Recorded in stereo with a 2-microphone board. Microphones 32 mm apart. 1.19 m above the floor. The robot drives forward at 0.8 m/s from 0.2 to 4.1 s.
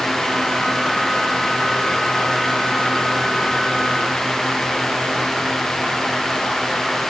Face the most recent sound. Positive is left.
No sound to turn to.